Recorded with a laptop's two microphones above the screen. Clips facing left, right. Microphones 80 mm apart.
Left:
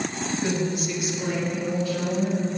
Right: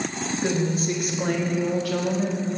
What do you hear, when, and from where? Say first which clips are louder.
0.4 s a woman speaking: right 3 dB; 25° right (ahead or behind), 1.6 m; by 2.6 s 70° right (ahead or behind), 2 m